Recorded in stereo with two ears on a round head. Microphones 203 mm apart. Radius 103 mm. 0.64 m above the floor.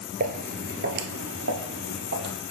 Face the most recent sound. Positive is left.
turn(degrees=-50)  # may be behind; listen again after turning